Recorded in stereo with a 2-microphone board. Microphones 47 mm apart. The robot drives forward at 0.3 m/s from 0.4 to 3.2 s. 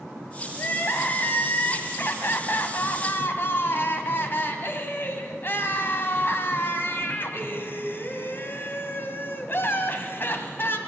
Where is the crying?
45° left (ahead or behind), 1.9 m; by 10.8 s 50° left (ahead or behind), 1.8 m.